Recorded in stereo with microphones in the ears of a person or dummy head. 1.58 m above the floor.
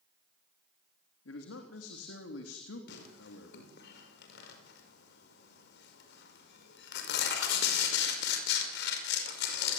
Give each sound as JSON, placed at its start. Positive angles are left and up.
{"t": 1.2, "sound": "a man speaking", "side_deg": 85, "distance_m": 3.0}
{"t": 2.9, "sound": "tearing paper", "side_deg": 70, "distance_m": 5.5}